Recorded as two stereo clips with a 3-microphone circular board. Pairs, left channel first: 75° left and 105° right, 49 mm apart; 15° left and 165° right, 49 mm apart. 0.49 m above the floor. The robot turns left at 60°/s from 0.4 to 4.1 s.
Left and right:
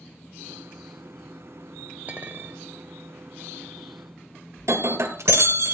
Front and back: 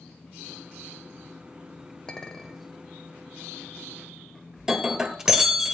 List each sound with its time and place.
2.1 s a clink: 55° right, 1.2 m; by 2.6 s 90° right, 1.2 m
4.6 s breaking glass: 90° right, 1.7 m